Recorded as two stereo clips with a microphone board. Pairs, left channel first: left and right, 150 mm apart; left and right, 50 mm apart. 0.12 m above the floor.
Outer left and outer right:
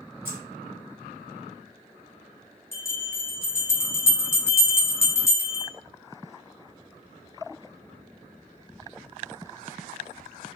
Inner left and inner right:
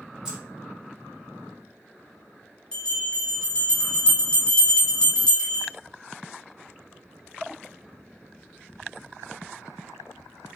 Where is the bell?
15° left (ahead or behind), 1.1 m.